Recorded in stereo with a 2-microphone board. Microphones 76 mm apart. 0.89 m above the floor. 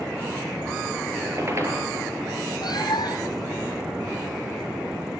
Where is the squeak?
35° right (ahead or behind), 9.5 m.